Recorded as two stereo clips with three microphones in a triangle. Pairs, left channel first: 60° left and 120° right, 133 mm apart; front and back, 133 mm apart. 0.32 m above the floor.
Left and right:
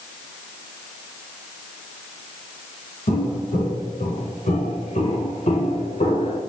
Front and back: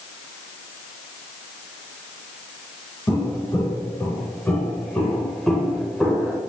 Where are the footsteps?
65° left, 4 m; by 6.4 s 95° left, 2.5 m.